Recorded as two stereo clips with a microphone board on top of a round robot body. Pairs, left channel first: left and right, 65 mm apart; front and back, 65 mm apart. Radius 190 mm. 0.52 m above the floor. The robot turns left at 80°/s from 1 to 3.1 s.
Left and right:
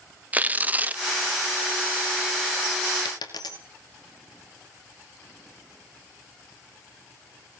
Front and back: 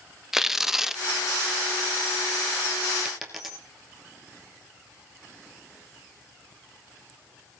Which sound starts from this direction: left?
A dropped coin, at 3.0 s.